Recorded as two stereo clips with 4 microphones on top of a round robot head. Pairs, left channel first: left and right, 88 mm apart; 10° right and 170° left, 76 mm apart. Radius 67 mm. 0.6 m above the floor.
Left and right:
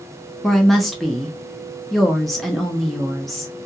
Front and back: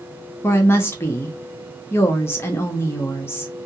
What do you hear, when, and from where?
0.4 s a woman speaking: straight ahead, 0.6 m